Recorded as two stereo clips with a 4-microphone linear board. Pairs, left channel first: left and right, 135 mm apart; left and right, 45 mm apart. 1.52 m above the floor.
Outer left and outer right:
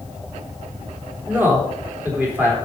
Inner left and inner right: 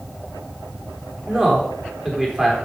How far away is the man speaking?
About 3.5 m.